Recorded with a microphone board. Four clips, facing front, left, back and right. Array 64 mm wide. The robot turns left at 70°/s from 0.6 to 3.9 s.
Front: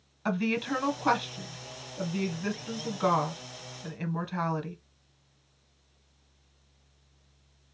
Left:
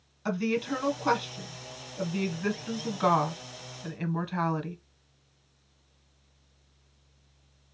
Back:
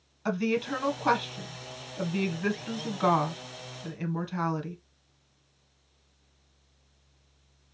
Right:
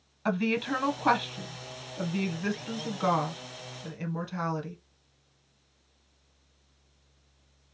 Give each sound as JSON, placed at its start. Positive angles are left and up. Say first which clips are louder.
{"t": 0.2, "sound": "a woman speaking", "louder": "right 1 dB, back 1 dB", "azimuth_deg": -60, "distance_m": 1.1}